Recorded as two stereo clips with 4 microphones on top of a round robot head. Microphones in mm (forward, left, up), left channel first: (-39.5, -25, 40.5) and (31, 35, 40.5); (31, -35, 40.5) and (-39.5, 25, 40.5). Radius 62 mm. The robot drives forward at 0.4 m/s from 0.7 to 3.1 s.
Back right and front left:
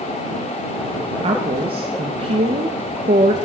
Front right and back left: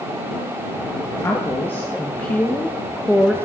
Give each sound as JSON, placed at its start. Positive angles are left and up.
{"t": 1.2, "sound": "a woman speaking", "azimuth_deg": 25, "distance_m": 1.5}